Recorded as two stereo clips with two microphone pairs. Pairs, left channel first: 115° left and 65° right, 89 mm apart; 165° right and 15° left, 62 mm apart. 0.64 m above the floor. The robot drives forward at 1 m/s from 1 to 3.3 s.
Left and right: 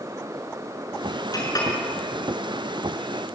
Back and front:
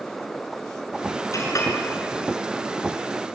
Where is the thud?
I don't hear a thud.